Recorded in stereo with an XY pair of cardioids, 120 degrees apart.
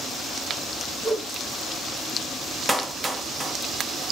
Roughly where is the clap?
Ahead.